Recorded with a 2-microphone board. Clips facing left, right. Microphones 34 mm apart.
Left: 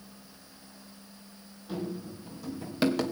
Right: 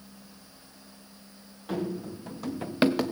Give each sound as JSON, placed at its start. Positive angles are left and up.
{"t": 1.7, "sound": "running footsteps", "side_deg": -70, "distance_m": 2.0}